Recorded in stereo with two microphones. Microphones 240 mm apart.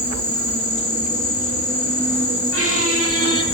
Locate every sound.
0.0 s an insect: 55° right (ahead or behind), 1.1 m
2.5 s a squeak: 65° right (ahead or behind), 0.8 m